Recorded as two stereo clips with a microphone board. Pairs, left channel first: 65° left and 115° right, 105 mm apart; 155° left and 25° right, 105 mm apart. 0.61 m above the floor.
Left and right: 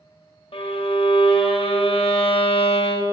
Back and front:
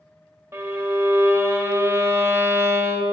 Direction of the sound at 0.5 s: 40° left.